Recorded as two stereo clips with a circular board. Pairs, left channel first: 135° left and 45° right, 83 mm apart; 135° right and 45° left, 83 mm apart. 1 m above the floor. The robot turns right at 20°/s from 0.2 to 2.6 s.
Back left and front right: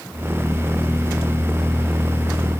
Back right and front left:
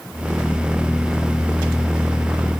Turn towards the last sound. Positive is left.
No sound to turn to.